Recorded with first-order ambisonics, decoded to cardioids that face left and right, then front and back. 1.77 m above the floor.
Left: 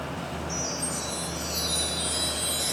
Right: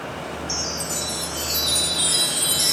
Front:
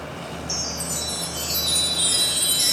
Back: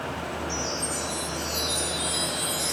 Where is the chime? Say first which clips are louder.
Right 5 dB, front 4 dB; 50° right, 3 m.